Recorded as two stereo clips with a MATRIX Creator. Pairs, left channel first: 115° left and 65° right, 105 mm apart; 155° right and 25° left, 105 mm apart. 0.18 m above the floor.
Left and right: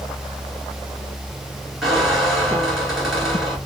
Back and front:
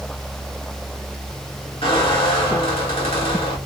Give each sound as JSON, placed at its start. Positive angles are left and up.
{"t": 1.8, "sound": "a squeak", "azimuth_deg": -155, "distance_m": 1.9}